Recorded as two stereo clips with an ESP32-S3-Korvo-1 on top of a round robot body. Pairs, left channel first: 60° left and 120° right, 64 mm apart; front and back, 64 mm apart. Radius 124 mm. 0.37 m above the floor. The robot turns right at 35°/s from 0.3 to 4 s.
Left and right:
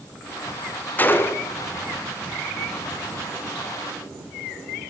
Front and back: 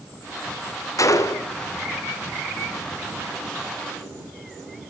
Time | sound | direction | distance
1.0 | a gunshot | 5° left | 2.0 m